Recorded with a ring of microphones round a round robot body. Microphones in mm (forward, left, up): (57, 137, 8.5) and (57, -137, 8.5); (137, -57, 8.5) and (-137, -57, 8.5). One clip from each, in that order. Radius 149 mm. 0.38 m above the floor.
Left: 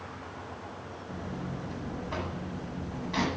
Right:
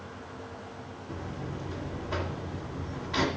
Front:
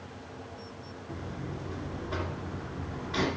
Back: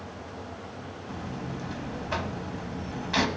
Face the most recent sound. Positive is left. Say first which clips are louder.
# right 1 dB, back 3 dB
turn(degrees=175)